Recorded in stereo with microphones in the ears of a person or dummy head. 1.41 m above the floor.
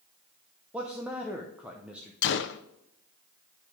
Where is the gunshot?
55° left (ahead or behind), 0.6 m.